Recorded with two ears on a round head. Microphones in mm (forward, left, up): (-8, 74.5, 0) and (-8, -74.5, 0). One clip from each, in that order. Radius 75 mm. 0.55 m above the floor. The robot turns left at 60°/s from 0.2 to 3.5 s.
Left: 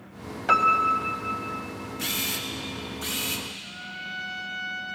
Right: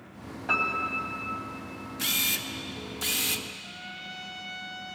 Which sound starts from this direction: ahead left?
A piano, at 0.5 s.